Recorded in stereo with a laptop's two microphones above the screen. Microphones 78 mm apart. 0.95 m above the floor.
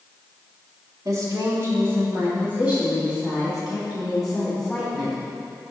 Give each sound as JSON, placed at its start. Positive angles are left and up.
{"t": 1.1, "sound": "a woman speaking", "side_deg": -50, "distance_m": 2.5}